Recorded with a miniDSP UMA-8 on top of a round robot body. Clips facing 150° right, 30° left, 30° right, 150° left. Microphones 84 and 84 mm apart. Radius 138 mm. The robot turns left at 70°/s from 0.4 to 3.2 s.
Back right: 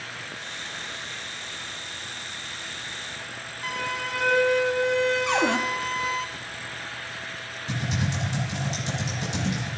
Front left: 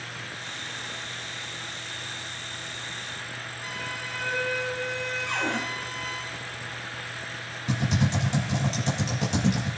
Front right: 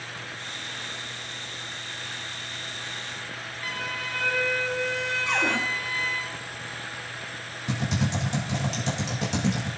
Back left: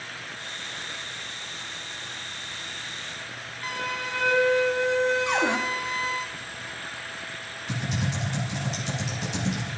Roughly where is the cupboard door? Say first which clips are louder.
Back right 6 dB, back left 2 dB; behind right.